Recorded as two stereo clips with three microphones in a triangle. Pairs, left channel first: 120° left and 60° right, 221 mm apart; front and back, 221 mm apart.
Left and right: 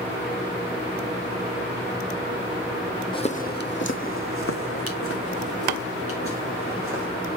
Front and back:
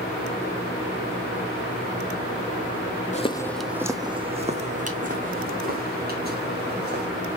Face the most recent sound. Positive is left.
turn(degrees=135)